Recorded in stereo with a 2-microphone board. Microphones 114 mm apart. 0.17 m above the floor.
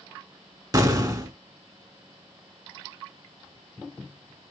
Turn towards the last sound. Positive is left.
turn(degrees=-35)  # may be behind; listen again after turning